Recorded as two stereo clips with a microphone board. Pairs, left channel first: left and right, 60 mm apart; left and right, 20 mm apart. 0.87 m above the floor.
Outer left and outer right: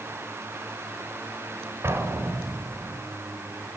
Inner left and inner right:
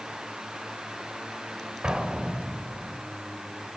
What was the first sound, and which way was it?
An explosion, 50° right (ahead or behind).